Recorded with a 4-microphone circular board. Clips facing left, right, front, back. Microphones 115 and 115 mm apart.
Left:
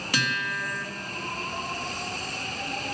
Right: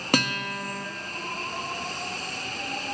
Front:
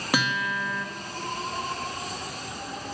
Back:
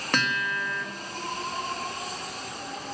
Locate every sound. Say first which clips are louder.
0.1 s a guitar: right 4 dB, front 2 dB; 80° right, 1.5 m